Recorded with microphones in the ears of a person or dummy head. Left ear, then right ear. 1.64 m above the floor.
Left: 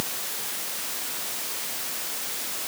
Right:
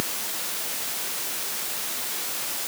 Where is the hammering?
I don't hear hammering.